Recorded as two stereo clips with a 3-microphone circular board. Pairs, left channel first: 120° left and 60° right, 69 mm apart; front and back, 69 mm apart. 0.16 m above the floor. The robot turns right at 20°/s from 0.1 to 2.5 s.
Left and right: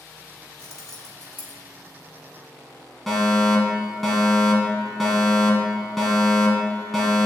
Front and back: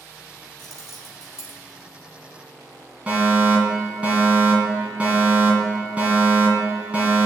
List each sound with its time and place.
0.6 s keys jangling: 85° left, 2.5 m; by 1.6 s 105° left, 2.5 m
3.1 s a fire alarm: 155° right, 2.0 m